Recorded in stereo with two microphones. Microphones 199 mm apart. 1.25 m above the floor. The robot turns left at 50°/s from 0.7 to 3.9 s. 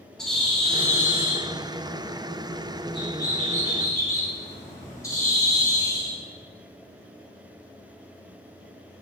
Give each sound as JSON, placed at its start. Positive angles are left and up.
{"t": 0.2, "sound": "a bird", "azimuth_deg": 175, "distance_m": 2.0}